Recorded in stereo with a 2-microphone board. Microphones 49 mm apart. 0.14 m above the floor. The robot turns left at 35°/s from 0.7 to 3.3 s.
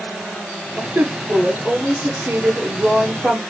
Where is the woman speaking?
80° right, 2.0 m; by 3.4 s 165° right, 2.0 m.